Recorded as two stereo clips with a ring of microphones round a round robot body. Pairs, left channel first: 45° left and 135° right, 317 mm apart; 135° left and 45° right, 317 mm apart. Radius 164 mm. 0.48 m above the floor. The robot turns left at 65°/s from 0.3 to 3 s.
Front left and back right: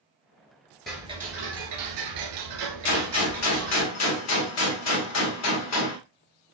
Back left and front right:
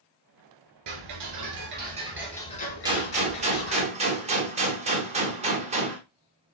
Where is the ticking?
45° right, 1.7 m; by 3.9 s 175° left, 1.7 m.